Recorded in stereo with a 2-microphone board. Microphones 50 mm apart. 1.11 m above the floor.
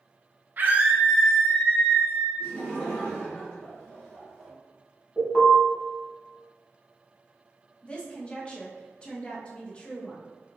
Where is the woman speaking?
20° left (ahead or behind), 0.8 m.